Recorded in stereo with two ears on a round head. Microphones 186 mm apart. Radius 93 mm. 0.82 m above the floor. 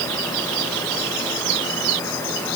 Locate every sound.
Only background noise.